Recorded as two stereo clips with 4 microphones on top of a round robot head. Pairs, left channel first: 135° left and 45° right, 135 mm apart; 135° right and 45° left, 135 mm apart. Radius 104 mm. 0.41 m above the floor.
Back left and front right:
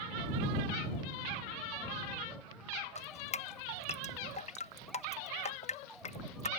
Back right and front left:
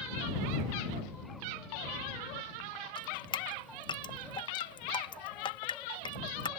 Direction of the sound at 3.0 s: 170° left.